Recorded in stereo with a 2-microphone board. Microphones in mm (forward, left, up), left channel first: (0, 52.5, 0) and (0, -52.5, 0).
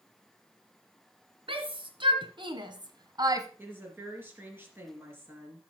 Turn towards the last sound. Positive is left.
turn(degrees=-20)  # may be behind; listen again after turning